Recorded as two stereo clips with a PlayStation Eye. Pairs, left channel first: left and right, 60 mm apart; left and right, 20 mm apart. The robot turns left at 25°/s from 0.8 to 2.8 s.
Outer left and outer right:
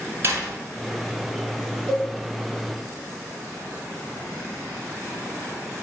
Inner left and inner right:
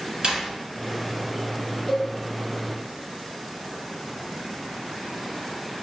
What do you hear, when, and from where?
0.2 s a door slam: 40° right (ahead or behind), 1.6 m
1.9 s a cowbell: 15° right (ahead or behind), 1.2 m